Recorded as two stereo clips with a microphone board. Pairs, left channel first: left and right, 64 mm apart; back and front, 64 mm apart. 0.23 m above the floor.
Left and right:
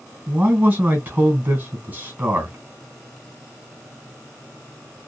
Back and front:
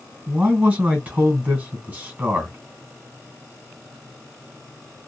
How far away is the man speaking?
About 1.8 m.